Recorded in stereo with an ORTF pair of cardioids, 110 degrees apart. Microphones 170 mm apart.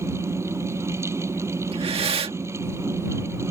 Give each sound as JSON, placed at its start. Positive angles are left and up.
{"t": 0.0, "sound": "a fan", "azimuth_deg": -15}
{"t": 1.7, "sound": "breathing", "azimuth_deg": -35}